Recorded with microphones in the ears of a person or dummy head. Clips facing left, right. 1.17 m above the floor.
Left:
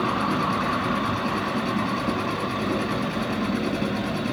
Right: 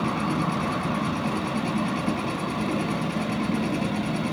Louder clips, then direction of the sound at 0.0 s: Left 1 dB; 70° right (ahead or behind).